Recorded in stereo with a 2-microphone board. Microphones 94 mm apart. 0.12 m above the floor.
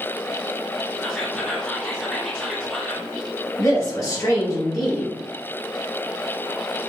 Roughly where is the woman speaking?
Left.